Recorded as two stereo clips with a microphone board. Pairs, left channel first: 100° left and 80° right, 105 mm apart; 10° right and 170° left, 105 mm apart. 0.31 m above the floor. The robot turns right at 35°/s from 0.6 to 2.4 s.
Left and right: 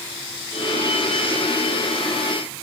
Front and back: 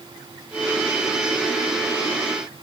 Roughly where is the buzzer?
I don't hear a buzzer.